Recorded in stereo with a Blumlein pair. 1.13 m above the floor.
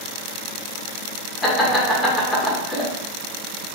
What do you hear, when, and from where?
1.4 s laughter: 10° left, 1.2 m